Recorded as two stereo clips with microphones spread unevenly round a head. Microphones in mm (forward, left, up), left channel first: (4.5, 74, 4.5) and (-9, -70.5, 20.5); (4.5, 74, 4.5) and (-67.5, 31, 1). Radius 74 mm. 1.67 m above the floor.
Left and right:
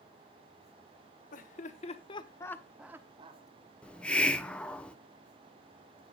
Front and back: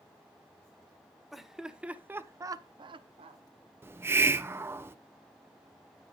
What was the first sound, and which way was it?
Laughter, 125° left.